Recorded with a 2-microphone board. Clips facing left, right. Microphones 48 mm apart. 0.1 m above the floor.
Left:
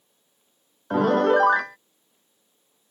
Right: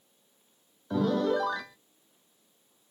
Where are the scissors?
I don't hear scissors.